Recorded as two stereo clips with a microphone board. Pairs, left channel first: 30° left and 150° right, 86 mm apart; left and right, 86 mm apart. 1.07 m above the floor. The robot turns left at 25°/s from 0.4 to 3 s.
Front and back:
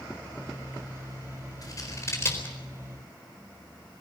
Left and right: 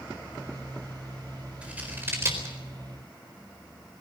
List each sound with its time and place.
1.6 s scissors: 15° right, 4 m; by 2.5 s 40° right, 4 m